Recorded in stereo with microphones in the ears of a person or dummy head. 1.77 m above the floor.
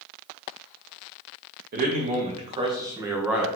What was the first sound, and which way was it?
A man speaking, 50° right (ahead or behind).